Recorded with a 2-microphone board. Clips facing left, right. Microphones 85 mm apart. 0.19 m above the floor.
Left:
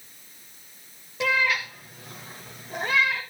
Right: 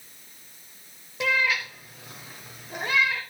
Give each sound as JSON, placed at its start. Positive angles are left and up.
{"t": 1.2, "sound": "a cat meowing", "side_deg": 0, "distance_m": 2.0}